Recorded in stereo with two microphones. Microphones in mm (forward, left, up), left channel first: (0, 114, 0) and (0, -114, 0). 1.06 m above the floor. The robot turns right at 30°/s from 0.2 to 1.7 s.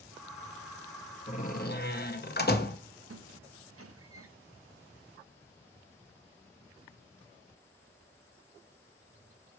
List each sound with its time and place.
1.3 s a door slam: 35° left (ahead or behind), 0.9 m; by 2.8 s 45° left (ahead or behind), 0.9 m
3.1 s a squeak: 85° right, 0.6 m